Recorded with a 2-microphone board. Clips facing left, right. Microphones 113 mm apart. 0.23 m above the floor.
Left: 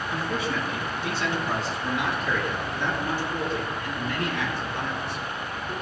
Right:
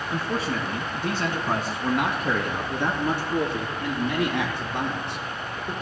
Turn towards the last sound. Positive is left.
turn(degrees=-70)  # may be behind; listen again after turning